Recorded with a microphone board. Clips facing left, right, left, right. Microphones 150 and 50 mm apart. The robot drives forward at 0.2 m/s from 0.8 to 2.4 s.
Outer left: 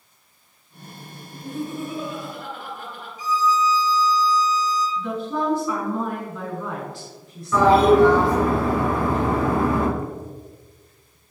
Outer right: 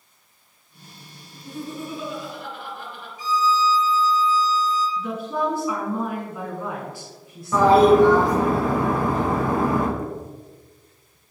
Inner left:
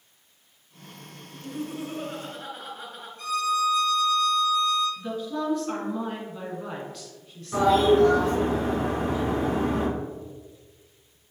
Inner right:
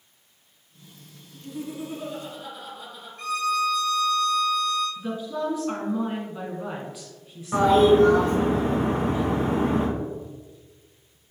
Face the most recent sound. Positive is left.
turn(degrees=-40)  # may be behind; listen again after turning